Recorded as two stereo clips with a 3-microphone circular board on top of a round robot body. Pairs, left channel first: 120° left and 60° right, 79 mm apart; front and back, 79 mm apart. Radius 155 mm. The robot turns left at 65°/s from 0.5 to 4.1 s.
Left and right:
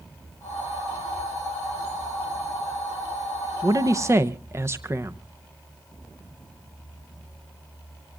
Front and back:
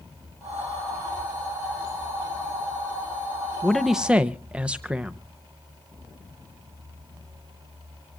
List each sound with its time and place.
3.6 s a man speaking: 75° right, 0.9 m; by 5.2 s 105° right, 0.9 m